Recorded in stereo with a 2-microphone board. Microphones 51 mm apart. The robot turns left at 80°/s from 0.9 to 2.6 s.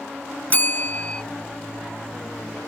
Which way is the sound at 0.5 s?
35° left (ahead or behind).